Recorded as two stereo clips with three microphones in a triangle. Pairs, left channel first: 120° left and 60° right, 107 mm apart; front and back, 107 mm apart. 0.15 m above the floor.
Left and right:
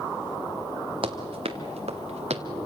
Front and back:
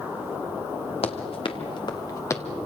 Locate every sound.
1.0 s running footsteps: 25° right, 2.5 m; by 2.4 s 65° right, 1.8 m